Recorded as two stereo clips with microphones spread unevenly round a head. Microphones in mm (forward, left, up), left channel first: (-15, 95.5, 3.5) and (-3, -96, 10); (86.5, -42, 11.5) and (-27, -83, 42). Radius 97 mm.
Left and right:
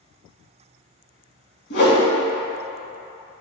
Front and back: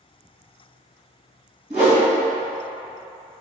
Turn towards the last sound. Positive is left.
turn(degrees=130)